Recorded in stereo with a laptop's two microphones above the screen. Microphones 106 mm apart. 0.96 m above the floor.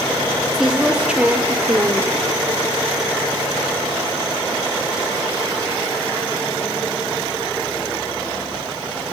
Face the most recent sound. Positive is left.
turn(degrees=-25)  # may be behind; listen again after turning